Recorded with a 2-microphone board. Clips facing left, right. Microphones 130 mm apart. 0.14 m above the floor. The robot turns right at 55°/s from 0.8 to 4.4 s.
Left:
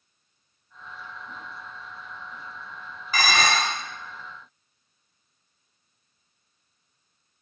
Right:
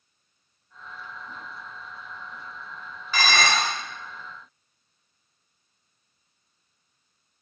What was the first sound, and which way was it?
Dishes clattering, 40° left.